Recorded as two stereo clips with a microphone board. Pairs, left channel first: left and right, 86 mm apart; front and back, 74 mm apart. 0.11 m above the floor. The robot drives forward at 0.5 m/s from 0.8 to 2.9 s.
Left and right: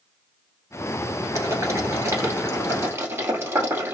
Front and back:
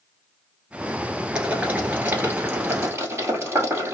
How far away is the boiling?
About 1.5 m.